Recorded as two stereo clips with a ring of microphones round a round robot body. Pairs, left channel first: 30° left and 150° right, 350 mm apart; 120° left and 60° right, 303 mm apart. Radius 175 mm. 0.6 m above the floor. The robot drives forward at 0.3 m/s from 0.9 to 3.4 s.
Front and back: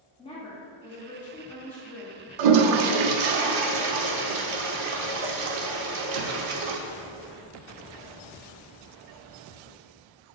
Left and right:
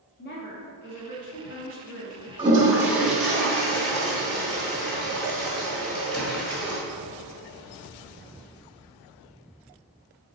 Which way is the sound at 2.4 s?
135° right.